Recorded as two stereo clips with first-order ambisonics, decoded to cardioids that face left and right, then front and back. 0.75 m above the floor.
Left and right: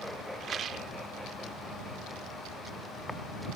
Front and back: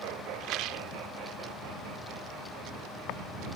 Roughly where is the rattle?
Behind right.